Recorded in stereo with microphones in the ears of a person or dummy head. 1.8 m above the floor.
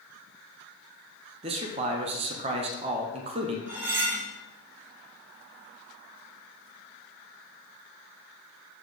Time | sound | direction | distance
1.4 | a man speaking | 30° right (ahead or behind) | 1.3 m
3.7 | cutlery clinking | 10° right (ahead or behind) | 1.2 m